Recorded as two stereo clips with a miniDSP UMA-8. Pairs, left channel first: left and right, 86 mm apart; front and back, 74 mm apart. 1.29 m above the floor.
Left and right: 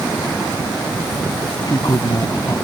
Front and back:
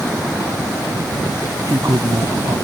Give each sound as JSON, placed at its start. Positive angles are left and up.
{"t": 1.7, "sound": "a man speaking", "azimuth_deg": 135}